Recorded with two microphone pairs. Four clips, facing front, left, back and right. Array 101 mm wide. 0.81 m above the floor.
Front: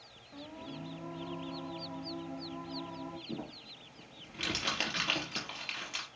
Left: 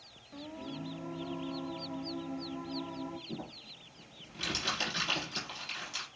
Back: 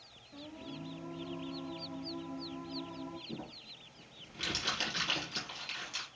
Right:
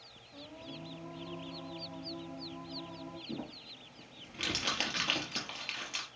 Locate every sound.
0.3 s singing: 45° left, 1.1 m
3.3 s crumpling: 25° right, 4 m